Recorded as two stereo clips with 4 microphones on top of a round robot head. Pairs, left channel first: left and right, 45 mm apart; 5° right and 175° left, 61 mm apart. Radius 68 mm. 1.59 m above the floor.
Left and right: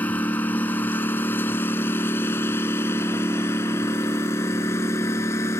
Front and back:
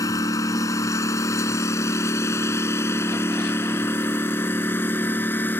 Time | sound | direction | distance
0.0 | a lawn mower | 25° left | ?